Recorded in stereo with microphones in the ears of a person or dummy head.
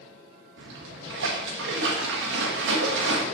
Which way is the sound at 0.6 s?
75° right (ahead or behind).